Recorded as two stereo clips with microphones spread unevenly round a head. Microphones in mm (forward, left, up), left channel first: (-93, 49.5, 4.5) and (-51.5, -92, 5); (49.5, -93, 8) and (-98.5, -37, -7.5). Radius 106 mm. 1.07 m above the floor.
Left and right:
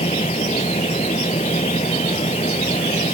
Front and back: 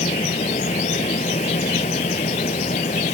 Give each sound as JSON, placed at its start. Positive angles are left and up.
{"t": 0.0, "sound": "a fan", "azimuth_deg": 40}